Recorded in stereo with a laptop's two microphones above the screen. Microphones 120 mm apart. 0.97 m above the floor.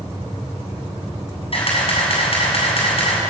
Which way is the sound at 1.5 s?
55° left (ahead or behind).